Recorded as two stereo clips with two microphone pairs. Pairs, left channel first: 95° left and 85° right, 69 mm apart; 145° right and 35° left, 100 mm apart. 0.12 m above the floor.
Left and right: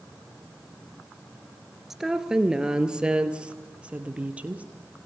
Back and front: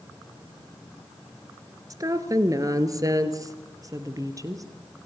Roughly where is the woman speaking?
Ahead.